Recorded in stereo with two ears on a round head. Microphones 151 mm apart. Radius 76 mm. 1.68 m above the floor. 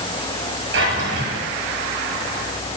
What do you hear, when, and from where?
0.7 s a drawer: 80° right, 8.5 m